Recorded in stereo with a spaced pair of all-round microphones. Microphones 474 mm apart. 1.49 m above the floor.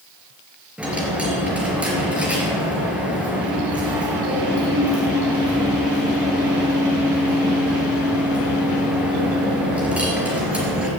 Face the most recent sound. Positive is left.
turn(degrees=-5)  # may be behind; listen again after turning